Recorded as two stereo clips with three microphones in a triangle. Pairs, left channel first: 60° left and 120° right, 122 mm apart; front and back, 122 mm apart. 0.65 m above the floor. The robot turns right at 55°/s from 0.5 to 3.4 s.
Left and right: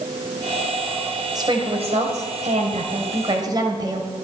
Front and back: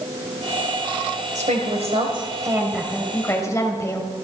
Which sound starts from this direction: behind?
A woman speaking, at 1.4 s.